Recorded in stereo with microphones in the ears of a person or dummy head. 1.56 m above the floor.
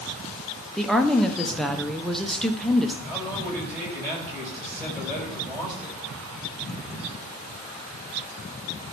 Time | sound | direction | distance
0.8 | a woman speaking | 5° left (ahead or behind) | 0.9 m
3.0 | a man speaking | 10° right (ahead or behind) | 6.5 m